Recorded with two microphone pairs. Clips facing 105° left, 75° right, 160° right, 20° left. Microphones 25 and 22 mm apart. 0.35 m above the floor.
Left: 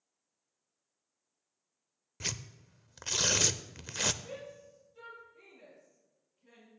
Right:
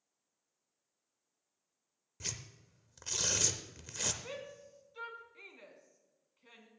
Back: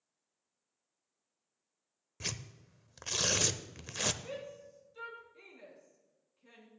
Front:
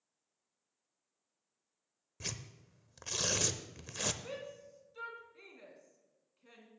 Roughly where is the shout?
Ahead right.